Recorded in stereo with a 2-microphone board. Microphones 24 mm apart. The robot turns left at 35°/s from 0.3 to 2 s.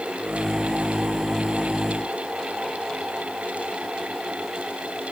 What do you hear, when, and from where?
Only background noise.